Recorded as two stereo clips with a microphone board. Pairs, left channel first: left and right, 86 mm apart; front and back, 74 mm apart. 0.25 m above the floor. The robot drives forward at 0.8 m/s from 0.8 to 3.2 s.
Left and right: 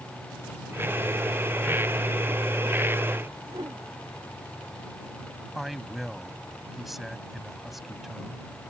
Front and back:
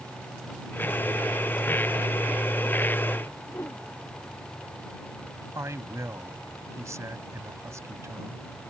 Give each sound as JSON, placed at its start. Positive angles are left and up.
{"t": 3.5, "sound": "a whoosh", "azimuth_deg": -60}
{"t": 5.5, "sound": "a man speaking", "azimuth_deg": -175}